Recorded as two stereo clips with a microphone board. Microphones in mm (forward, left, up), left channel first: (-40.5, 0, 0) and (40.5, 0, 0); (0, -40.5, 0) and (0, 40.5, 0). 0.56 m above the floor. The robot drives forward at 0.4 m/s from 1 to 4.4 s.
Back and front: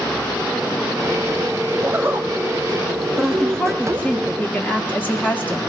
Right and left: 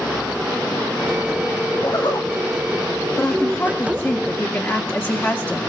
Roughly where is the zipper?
Ahead right.